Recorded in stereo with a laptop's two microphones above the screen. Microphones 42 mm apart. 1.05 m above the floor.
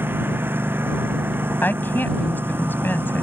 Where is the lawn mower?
60° right (ahead or behind).